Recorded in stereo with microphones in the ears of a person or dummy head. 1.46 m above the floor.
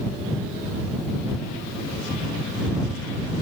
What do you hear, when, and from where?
Only background noise.